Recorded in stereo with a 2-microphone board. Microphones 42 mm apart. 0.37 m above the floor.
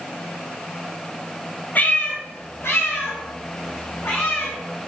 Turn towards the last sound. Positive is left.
turn(degrees=85)